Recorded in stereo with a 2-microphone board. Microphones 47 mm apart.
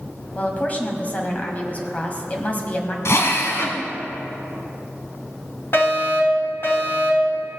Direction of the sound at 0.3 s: 30° left (ahead or behind).